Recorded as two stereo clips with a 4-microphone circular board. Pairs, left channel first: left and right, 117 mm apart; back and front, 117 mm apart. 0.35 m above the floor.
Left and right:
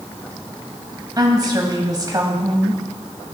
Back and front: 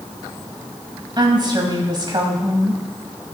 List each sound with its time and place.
1.2 s a woman speaking: 40° right, 1.6 m